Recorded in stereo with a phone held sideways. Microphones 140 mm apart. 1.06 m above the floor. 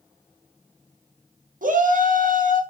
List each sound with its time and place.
1.6 s a shout: 75° right (ahead or behind), 1.5 m